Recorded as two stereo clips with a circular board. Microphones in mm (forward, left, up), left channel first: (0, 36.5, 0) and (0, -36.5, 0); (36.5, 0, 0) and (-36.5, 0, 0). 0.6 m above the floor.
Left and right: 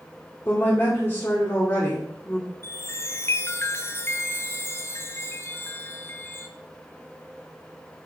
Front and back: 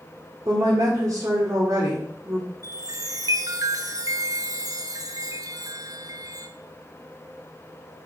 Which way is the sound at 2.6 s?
145° left.